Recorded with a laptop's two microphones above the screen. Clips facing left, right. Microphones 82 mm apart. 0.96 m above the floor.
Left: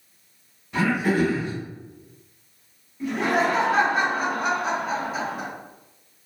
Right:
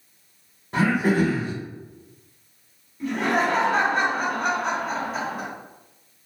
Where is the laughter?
Centre (ahead or behind), 1.3 m.